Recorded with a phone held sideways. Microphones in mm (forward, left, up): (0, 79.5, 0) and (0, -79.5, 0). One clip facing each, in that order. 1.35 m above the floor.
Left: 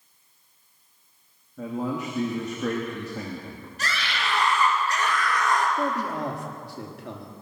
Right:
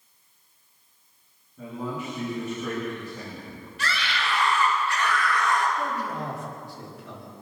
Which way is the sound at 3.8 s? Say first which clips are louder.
Right 1 dB; 45° left (ahead or behind).